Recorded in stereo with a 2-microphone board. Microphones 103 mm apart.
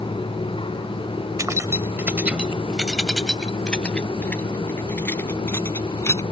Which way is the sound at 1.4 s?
35° right (ahead or behind).